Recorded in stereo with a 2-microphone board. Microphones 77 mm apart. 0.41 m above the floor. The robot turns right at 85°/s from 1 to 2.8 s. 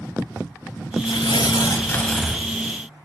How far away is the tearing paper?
About 0.8 m.